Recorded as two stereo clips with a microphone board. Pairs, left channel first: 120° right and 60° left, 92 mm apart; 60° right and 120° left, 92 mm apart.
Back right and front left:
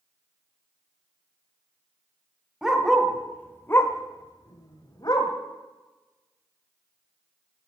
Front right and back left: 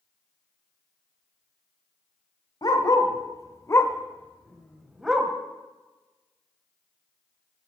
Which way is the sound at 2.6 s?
25° right.